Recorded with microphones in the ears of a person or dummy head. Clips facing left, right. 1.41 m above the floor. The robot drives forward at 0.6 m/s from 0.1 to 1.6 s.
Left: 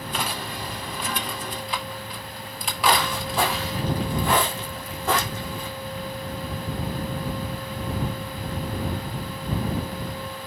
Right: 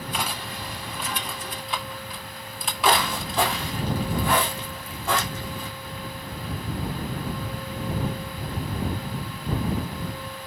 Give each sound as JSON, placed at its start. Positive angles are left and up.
{"t": 0.1, "sound": "cutlery clinking", "side_deg": -5, "distance_m": 0.6}
{"t": 2.4, "sound": "footsteps", "side_deg": -25, "distance_m": 2.5}